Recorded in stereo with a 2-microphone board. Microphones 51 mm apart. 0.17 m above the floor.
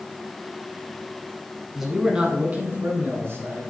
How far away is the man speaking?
About 1.2 m.